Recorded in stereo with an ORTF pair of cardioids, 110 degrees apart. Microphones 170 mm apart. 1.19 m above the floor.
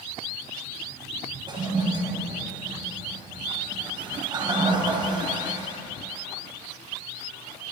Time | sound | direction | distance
1.5 | a toilet flushing | 25° right | 5 m